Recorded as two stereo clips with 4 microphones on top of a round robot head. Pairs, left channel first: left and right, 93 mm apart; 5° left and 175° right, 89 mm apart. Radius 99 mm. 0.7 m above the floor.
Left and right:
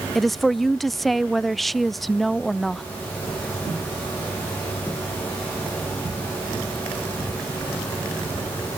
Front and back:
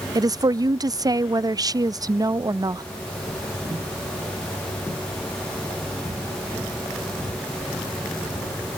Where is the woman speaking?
Straight behind.